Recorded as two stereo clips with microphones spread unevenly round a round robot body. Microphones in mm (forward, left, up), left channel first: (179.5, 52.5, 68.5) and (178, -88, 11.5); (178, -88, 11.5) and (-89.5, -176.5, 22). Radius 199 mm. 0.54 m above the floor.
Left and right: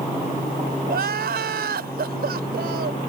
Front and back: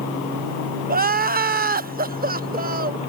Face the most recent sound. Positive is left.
turn(degrees=-95)